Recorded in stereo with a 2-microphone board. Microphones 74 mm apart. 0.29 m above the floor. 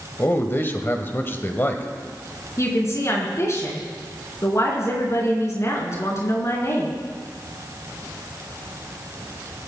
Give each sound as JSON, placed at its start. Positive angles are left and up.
{"t": 0.2, "sound": "a man speaking", "side_deg": 30, "distance_m": 1.4}
{"t": 2.6, "sound": "a woman speaking", "side_deg": 40, "distance_m": 4.5}